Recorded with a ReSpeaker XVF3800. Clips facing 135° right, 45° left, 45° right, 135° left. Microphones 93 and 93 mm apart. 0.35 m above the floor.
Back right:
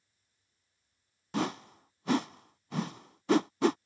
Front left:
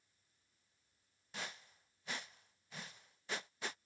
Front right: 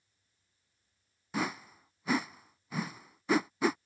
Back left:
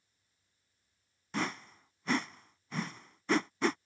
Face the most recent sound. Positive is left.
turn(degrees=-130)